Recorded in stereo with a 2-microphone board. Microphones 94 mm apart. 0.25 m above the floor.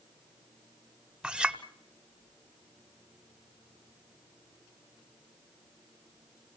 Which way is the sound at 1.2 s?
10° right (ahead or behind).